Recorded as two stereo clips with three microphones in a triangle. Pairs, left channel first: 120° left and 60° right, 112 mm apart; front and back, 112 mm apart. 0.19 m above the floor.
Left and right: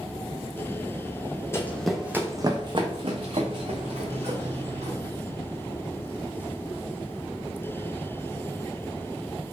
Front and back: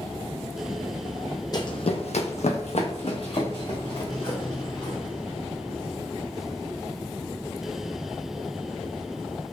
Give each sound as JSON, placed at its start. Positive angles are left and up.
{"t": 1.5, "sound": "running footsteps", "azimuth_deg": 55, "distance_m": 0.6}